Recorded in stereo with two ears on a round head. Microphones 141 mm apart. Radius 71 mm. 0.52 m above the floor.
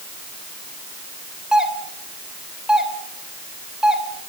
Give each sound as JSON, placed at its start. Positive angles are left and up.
{"t": 1.5, "sound": "a doorbell", "side_deg": -5, "distance_m": 2.5}